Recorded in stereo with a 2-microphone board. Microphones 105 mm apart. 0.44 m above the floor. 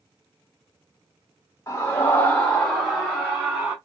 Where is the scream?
30° left (ahead or behind), 1.1 m; by 3.8 s 10° right (ahead or behind), 1.5 m.